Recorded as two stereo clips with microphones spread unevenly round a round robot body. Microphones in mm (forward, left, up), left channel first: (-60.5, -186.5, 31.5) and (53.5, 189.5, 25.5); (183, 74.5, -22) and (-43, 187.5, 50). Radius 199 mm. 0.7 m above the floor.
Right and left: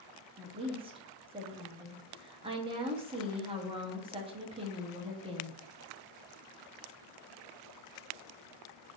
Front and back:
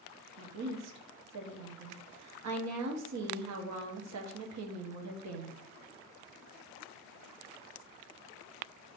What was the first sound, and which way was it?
A woman speaking, 145° left.